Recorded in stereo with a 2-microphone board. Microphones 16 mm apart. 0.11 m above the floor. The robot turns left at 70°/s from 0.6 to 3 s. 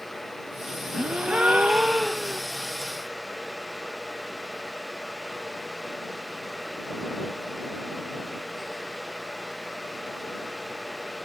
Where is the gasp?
60° right; by 2.4 s 160° right.